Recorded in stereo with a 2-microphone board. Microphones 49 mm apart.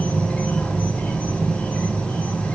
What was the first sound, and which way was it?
An insect, 20° left (ahead or behind).